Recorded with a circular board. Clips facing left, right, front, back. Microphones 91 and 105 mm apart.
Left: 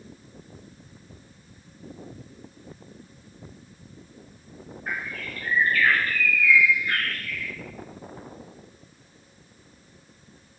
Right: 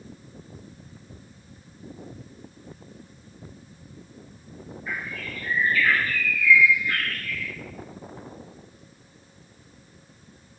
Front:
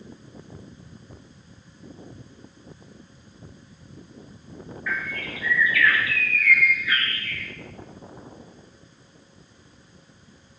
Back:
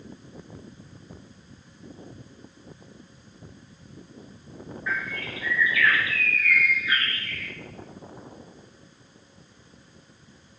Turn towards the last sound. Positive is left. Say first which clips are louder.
# left 1 dB, even
turn(degrees=115)